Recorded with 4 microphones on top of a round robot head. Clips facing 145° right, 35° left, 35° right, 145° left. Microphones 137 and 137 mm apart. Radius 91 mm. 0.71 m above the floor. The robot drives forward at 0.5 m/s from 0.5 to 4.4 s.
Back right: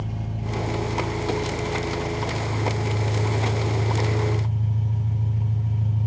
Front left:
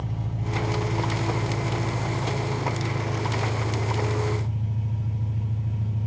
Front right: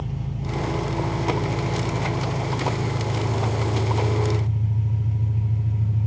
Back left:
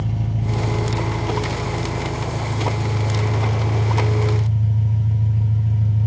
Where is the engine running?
140° left, 1.1 m; by 6.1 s 165° left, 3 m.